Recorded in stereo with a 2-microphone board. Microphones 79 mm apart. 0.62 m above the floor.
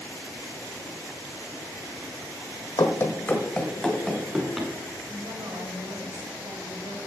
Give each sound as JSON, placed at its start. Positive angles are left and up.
{"t": 2.8, "sound": "running footsteps", "side_deg": 50, "distance_m": 1.2}
{"t": 5.1, "sound": "a woman speaking", "side_deg": -60, "distance_m": 2.5}